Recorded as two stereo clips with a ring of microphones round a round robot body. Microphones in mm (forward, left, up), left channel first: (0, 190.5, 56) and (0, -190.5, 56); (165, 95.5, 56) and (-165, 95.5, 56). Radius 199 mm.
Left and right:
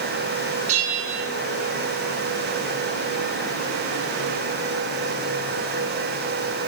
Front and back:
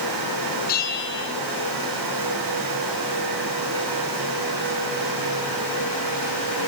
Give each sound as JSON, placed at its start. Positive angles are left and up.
{"t": 0.7, "sound": "a bell", "azimuth_deg": -65, "distance_m": 4.5}